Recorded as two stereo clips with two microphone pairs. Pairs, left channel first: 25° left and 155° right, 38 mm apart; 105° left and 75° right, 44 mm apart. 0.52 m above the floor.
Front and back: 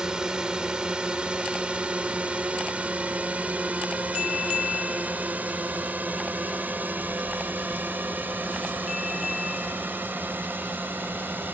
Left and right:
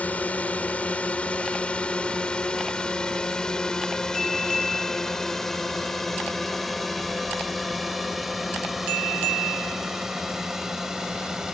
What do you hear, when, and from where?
0.0 s a drone: 145° left; by 11.6 s 150° right